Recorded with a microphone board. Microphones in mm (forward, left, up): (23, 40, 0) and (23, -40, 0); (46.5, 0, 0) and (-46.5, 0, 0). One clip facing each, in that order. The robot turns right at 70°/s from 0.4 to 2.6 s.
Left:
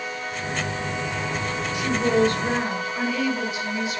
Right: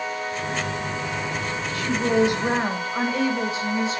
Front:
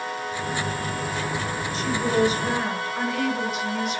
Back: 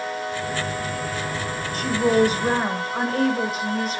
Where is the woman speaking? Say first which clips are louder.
Even, back 4 dB; 160° left, 1.8 m; by 4.0 s 140° right, 1.8 m.